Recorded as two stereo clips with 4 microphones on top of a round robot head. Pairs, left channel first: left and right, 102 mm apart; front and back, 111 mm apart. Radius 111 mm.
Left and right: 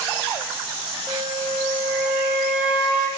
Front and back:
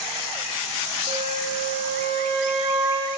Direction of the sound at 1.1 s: 165° right.